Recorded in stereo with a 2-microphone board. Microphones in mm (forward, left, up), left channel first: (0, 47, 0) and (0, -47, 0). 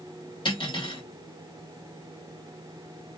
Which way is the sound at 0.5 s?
55° left (ahead or behind).